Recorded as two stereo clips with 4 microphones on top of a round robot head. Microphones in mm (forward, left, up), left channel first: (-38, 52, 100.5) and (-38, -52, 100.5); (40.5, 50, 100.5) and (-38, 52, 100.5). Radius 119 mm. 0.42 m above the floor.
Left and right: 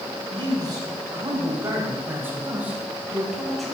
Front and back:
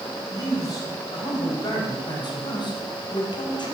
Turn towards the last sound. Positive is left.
turn(degrees=5)